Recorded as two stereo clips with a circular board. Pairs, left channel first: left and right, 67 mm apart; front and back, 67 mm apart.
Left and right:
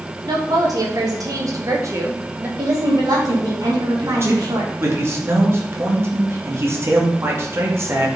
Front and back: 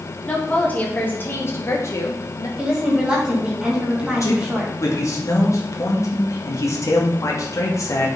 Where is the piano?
No piano in this recording.